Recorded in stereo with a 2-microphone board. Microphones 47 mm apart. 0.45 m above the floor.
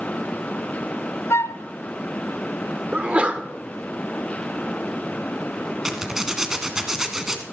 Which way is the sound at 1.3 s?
70° left (ahead or behind).